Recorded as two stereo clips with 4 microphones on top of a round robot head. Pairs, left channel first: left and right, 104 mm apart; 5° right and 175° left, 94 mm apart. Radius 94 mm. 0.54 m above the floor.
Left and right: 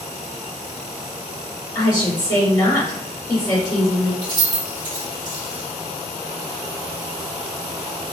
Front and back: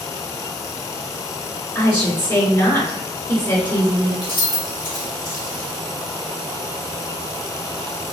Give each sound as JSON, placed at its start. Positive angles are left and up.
{"t": 1.8, "sound": "a woman speaking", "azimuth_deg": 50, "distance_m": 1.8}
{"t": 4.2, "sound": "keys jangling", "azimuth_deg": -40, "distance_m": 1.4}